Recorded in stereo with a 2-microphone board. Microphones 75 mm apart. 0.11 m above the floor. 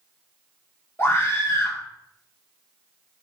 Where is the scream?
30° left (ahead or behind), 2.0 m.